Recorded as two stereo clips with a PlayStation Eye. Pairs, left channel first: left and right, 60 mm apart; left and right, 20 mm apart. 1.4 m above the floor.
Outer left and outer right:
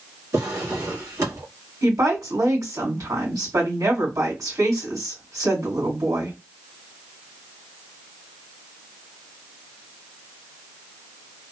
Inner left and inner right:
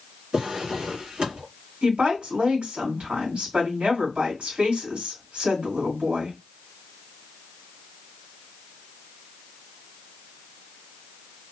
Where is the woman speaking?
80° right, 1.8 m.